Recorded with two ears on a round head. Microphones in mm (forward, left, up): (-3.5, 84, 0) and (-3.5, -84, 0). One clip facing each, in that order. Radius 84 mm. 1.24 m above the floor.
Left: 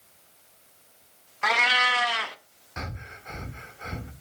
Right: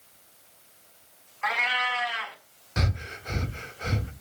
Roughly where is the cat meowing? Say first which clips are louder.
Left 3 dB; left.